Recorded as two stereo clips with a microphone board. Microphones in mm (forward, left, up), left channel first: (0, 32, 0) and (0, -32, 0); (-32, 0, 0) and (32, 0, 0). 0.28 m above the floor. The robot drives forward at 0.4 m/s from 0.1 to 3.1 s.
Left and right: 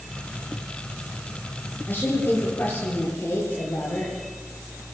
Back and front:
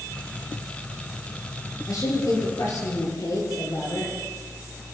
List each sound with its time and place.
1.9 s a woman speaking: 150° left, 7.5 m